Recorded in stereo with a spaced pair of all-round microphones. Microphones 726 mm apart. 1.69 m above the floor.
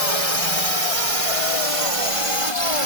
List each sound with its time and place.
0.0 s a drone: 55° left (ahead or behind); by 2.9 s 45° left (ahead or behind)